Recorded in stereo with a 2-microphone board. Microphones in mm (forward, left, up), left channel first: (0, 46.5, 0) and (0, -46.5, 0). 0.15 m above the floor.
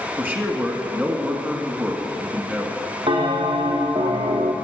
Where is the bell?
80° right, 1.9 m.